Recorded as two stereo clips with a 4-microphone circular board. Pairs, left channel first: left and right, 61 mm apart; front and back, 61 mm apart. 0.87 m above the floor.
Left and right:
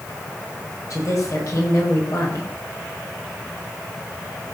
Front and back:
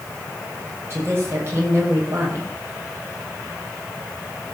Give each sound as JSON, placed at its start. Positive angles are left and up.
{"t": 0.9, "sound": "a woman speaking", "azimuth_deg": 130, "distance_m": 5.0}